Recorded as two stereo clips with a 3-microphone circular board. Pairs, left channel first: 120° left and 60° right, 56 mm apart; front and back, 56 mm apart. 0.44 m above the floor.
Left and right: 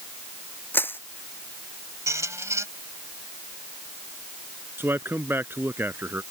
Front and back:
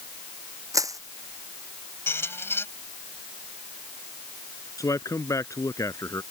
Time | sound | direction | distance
0.7 | crushing | 170° left | ?
2.1 | a squeak | 40° right | ?
4.8 | a man speaking | 10° right | ?